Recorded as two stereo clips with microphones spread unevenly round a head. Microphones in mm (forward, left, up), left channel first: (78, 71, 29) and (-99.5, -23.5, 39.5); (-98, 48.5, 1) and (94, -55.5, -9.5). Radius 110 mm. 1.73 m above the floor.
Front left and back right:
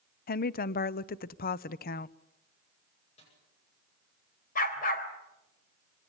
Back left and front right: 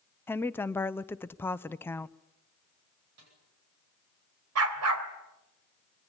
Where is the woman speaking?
75° left, 0.7 m.